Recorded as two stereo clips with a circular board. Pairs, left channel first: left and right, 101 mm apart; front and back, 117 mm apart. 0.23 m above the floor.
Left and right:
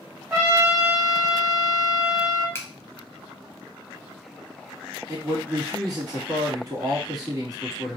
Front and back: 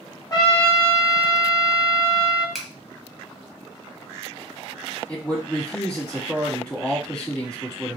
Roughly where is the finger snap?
Left.